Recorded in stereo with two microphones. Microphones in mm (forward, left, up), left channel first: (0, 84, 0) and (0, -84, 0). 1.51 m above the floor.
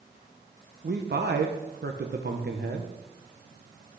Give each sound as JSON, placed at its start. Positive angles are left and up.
{"t": 0.8, "sound": "a man speaking", "side_deg": -80, "distance_m": 1.1}